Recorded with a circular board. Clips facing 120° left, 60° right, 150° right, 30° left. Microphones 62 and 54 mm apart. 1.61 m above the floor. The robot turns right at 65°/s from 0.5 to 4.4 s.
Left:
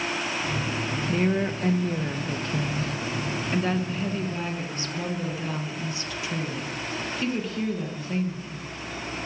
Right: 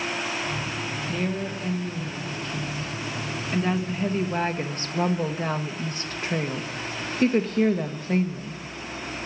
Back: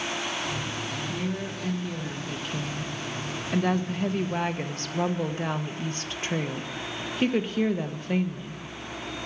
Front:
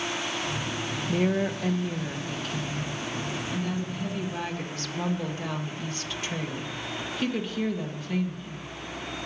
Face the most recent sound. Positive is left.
turn(degrees=-100)